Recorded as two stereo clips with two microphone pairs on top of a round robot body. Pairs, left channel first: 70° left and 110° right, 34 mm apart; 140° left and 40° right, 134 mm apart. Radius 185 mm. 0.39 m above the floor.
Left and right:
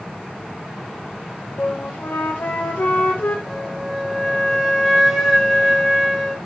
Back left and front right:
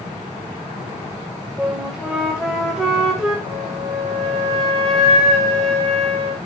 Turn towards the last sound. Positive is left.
turn(degrees=-30)